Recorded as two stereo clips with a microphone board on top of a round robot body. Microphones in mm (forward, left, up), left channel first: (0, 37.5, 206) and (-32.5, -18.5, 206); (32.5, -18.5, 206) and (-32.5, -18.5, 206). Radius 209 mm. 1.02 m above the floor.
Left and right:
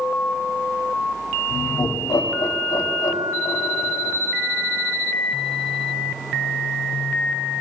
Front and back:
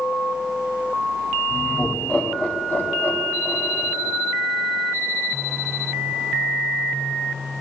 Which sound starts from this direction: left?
Laughter, at 1.5 s.